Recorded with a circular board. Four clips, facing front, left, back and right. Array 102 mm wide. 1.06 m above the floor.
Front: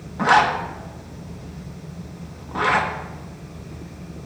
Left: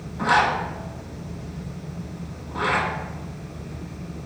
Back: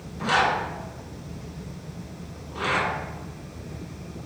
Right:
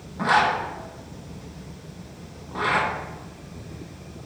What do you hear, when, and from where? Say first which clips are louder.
0.2 s a zipper: even, front 6 dB; 5° right, 1.1 m